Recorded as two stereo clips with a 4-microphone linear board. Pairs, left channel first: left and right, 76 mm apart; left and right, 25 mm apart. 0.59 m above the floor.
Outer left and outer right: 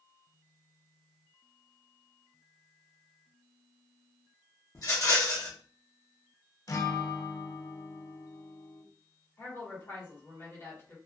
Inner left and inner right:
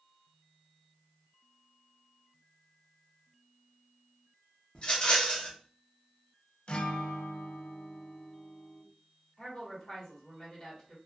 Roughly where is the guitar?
Left.